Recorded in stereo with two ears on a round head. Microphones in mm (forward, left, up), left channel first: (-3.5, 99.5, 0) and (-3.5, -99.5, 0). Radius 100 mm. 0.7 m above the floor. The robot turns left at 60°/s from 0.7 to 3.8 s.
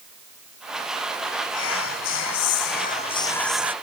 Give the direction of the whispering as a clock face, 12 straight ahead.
8 o'clock.